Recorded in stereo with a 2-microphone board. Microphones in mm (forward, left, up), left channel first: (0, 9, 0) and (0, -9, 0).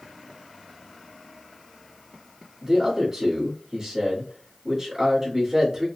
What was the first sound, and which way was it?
A man speaking, 20° right (ahead or behind).